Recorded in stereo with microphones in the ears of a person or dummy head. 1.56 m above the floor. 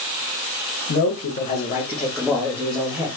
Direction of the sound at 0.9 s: 65° left (ahead or behind).